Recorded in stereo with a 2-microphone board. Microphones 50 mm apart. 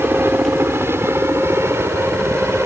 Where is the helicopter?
50° right (ahead or behind); by 2.7 s 60° right (ahead or behind).